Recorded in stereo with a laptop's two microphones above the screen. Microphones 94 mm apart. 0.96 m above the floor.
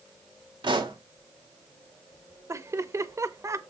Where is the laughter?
30° right (ahead or behind), 0.7 m.